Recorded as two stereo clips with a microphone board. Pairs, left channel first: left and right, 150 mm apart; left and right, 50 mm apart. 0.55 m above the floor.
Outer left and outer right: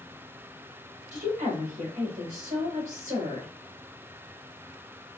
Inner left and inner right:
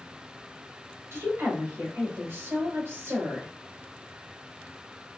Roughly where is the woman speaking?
Right.